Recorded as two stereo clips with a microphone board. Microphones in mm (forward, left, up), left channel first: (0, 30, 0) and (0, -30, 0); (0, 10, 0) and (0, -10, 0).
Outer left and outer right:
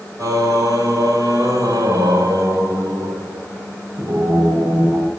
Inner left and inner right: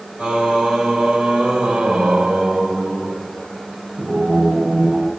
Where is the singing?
70° right (ahead or behind), 3 m.